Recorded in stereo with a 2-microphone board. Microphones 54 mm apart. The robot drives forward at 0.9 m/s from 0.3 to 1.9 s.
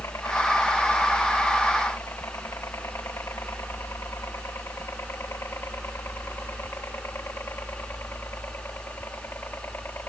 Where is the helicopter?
65° left (ahead or behind); by 10.1 s 40° left (ahead or behind).